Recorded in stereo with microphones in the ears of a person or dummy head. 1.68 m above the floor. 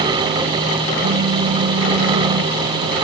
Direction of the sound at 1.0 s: 65° right (ahead or behind).